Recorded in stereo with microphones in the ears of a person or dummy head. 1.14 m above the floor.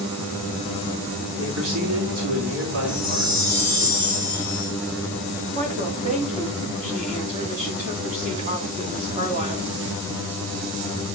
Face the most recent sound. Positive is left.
turn(degrees=-40)  # may be behind; listen again after turning